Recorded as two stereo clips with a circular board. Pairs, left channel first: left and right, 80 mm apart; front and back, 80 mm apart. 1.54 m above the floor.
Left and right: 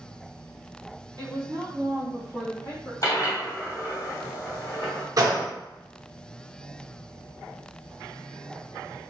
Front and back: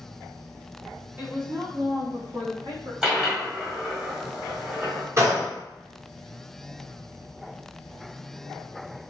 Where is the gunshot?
130° right, 0.8 m.